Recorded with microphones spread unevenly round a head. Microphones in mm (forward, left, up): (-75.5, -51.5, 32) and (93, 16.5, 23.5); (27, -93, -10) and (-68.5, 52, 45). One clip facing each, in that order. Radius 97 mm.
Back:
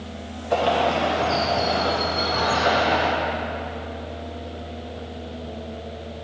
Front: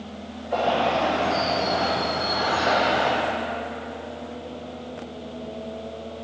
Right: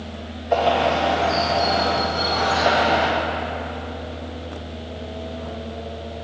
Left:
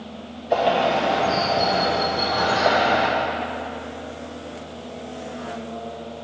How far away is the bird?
About 1.3 m.